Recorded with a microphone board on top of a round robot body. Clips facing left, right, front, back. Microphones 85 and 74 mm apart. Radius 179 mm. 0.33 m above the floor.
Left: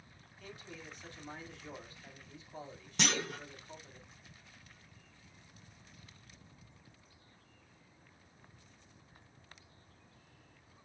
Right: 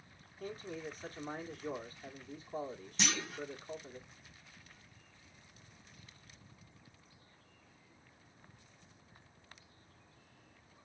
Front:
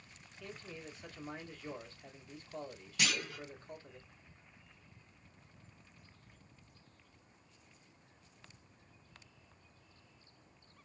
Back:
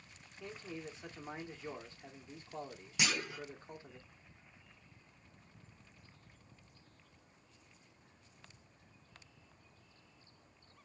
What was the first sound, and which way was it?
A man speaking, 120° right.